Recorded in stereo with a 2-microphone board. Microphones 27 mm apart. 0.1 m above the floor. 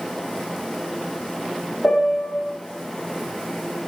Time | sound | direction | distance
1.8 | a piano | 50° left (ahead or behind) | 5 m